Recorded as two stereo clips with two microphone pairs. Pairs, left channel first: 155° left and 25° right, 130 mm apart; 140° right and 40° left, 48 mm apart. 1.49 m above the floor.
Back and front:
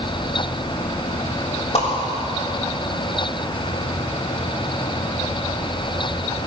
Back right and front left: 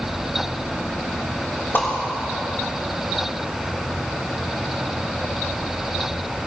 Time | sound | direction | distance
1.7 | a whoosh | 175° right | 3.5 m